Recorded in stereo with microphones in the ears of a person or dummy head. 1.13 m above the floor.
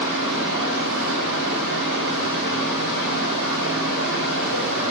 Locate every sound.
0.0 s a fan: 65° right (ahead or behind), 2.5 m